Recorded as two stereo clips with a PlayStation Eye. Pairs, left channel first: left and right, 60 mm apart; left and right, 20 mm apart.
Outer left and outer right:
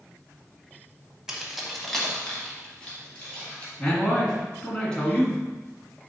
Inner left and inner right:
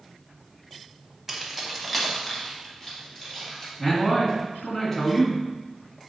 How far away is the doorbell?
No doorbell in this recording.